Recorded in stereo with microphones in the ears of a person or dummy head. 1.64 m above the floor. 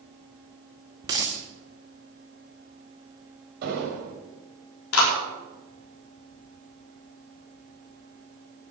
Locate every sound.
1.0 s a dropped coin: 15° right (ahead or behind), 1.1 m
3.6 s an explosion: 50° right (ahead or behind), 4 m
4.9 s a clap: 85° left, 4.5 m